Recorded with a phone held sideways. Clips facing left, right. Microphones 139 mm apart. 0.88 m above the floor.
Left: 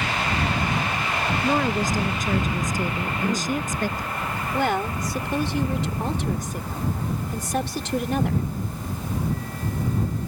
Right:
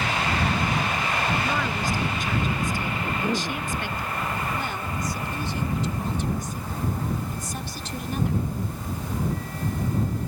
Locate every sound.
1.4 s a woman speaking: 40° left (ahead or behind)
3.0 s a cough: 10° right (ahead or behind)
4.5 s a woman speaking: 75° left (ahead or behind)